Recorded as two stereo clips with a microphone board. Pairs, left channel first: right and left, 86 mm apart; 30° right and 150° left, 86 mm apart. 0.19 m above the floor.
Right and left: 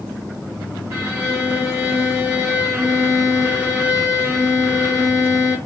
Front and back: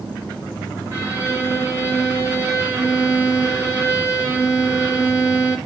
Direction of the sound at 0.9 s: 130° left.